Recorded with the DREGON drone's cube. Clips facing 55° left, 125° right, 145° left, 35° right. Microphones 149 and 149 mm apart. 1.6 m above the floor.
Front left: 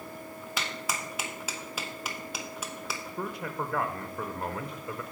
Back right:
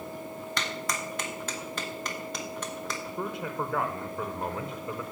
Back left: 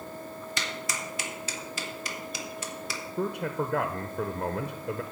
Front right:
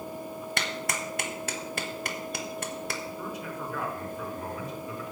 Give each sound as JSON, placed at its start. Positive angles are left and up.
{"t": 0.6, "sound": "a clap", "azimuth_deg": -25, "distance_m": 1.1}
{"t": 3.2, "sound": "a man speaking", "azimuth_deg": 145, "distance_m": 0.7}